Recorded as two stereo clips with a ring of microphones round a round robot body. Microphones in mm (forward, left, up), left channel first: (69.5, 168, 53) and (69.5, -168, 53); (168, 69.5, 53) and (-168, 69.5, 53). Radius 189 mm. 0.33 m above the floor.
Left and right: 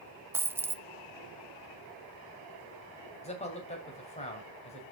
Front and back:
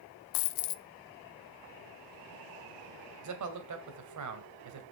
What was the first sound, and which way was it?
A dropped coin, 5° right.